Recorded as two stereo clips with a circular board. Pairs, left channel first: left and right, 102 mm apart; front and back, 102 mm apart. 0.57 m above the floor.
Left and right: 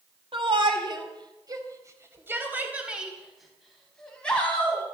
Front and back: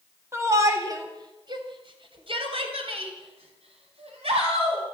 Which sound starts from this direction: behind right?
A shout, at 0.3 s.